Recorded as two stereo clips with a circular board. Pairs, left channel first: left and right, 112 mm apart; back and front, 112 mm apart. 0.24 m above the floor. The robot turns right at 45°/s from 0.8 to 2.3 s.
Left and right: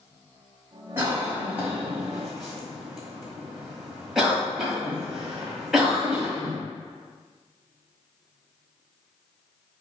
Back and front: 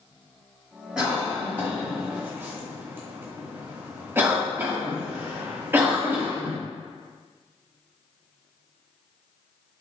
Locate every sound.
1.0 s a cough: 70° right, 1.2 m; by 6.6 s 10° right, 1.2 m